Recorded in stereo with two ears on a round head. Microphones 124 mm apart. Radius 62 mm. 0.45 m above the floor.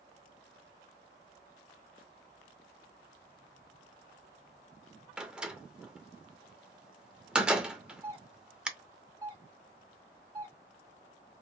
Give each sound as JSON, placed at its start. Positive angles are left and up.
{"t": 5.2, "sound": "a door slam", "side_deg": -5, "distance_m": 0.5}
{"t": 8.0, "sound": "a doorbell", "side_deg": -20, "distance_m": 1.5}